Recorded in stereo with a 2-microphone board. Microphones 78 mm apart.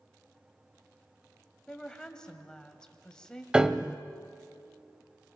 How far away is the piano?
About 0.5 m.